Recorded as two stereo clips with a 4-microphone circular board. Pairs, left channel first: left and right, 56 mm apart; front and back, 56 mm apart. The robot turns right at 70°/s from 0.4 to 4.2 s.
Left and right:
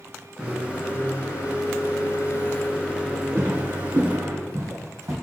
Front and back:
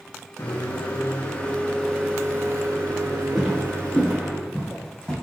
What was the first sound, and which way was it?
A microwave, 5° right.